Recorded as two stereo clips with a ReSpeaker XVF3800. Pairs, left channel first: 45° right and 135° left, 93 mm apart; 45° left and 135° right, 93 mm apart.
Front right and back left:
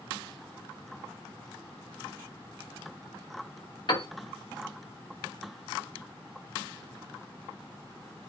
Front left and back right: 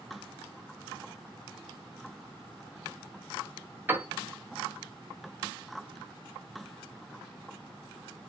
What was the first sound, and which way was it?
A piano, 70° right.